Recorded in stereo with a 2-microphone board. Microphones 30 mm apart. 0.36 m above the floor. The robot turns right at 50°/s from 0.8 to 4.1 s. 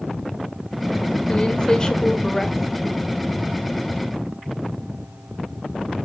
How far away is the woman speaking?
About 1.0 m.